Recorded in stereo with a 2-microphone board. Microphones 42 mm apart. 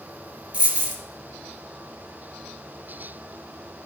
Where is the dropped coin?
30° right (ahead or behind), 2.0 m.